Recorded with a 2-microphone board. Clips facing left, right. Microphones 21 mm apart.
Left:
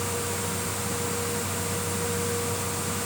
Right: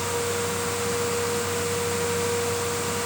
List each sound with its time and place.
Only background noise.